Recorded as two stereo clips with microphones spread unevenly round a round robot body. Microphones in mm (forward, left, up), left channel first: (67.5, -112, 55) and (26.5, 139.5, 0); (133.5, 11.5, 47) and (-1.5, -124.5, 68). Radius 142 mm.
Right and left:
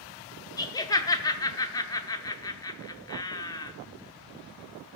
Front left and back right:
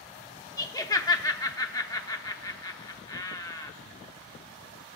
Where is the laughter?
5° left, 0.8 m.